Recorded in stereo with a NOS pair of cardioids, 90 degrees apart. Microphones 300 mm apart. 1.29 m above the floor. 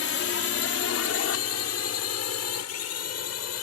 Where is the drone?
50° left; by 3.6 s 65° left.